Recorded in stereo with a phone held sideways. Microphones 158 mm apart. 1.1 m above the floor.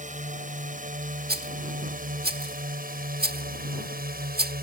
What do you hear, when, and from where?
0.0 s a drone: 55° right (ahead or behind); by 4.6 s 75° right (ahead or behind)
1.3 s a rattle: 90° right